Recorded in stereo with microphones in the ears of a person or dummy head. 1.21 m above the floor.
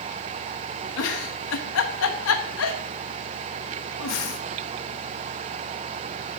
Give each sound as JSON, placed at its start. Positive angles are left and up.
{"t": 1.0, "sound": "a giggle", "side_deg": 75, "distance_m": 1.1}